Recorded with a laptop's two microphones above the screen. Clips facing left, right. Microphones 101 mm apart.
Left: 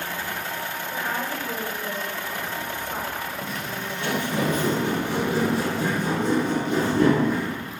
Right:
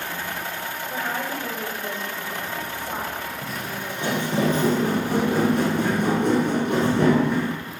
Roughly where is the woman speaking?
Right.